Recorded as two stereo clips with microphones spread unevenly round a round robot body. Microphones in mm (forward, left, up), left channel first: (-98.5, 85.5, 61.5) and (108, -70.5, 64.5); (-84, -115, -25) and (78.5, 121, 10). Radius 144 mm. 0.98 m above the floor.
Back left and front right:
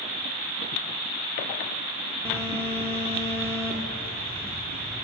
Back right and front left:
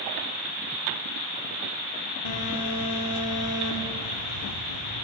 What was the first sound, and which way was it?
A phone buzzing, 135° right.